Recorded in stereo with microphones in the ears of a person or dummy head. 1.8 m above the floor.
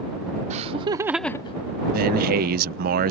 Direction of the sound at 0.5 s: 45° right (ahead or behind).